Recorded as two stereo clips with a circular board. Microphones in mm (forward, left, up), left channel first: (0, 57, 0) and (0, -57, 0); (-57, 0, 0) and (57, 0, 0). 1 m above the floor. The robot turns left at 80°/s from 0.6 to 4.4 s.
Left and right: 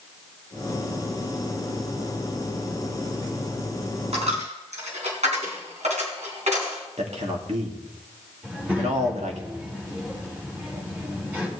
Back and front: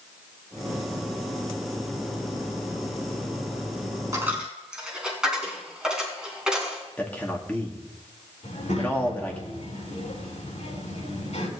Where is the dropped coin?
60° right, 3.5 m; by 6.8 s 85° right, 3.5 m.